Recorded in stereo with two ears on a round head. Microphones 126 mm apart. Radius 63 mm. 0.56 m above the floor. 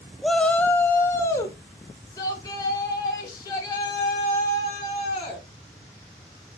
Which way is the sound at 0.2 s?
Centre (ahead or behind).